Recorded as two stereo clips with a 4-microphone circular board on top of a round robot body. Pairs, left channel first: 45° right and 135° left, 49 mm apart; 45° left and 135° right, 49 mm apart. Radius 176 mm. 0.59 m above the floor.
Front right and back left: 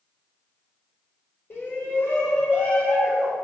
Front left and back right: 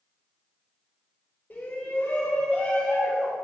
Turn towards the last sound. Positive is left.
turn(degrees=-50)